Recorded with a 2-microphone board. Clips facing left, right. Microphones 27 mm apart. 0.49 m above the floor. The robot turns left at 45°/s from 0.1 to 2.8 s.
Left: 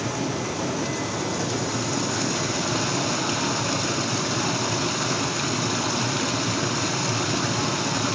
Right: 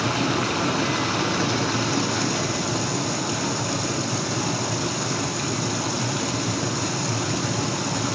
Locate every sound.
0.0 s running water: 70° right, 1.1 m; by 8.2 s 165° left, 1.1 m